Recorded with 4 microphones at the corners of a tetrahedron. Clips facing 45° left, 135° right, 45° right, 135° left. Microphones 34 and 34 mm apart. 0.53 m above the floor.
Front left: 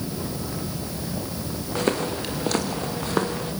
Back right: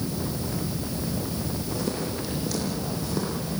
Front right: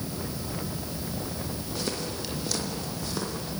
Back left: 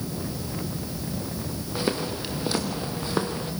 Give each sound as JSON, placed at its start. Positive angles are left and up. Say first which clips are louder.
{"t": 1.8, "sound": "footsteps", "louder": "front left 9 dB, back left 6 dB", "azimuth_deg": 70, "distance_m": 4.0}